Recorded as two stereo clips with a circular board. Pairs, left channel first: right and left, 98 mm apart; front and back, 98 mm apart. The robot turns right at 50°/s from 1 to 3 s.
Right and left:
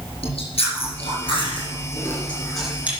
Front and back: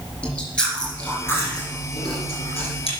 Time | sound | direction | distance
0.2 | chewing | 80° right | 5 m